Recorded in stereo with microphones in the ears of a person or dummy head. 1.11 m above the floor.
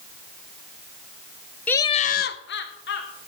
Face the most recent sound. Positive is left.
turn(degrees=60)  # may be behind; listen again after turning